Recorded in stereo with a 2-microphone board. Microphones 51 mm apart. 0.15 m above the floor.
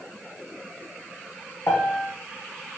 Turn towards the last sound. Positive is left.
turn(degrees=65)  # may be behind; listen again after turning